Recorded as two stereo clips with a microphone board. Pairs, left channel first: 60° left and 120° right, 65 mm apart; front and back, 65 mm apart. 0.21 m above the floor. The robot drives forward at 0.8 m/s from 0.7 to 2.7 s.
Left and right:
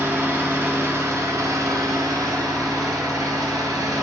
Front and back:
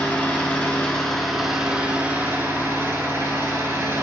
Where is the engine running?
70° right, 1.5 m; by 4.0 s 130° right, 1.8 m.